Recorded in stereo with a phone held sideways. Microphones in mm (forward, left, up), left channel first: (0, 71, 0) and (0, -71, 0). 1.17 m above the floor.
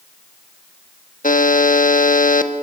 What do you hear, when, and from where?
1.2 s a buzzer: 70° left (ahead or behind), 1.3 m